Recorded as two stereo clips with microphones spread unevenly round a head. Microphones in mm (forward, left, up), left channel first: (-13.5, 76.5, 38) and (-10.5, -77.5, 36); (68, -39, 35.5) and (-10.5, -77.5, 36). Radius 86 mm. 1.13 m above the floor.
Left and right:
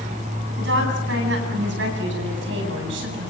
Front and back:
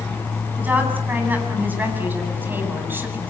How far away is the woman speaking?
About 8.5 m.